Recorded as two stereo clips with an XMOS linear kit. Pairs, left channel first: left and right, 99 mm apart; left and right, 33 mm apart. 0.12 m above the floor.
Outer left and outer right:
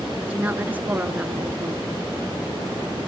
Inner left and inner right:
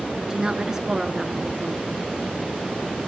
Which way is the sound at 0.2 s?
15° right (ahead or behind).